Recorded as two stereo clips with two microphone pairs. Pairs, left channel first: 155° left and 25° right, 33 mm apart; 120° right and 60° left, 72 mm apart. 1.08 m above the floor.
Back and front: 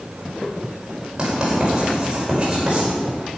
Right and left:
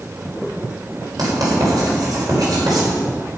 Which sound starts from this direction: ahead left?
Writing, at 1.2 s.